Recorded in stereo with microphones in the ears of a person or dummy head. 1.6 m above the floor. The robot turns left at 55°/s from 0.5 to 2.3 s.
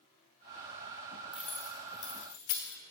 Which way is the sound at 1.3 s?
5° right (ahead or behind).